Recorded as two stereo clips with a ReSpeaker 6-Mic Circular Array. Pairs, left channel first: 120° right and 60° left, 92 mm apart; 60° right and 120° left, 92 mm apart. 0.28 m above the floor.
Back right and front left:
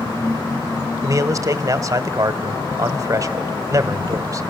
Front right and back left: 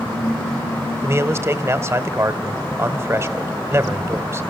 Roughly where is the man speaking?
Left.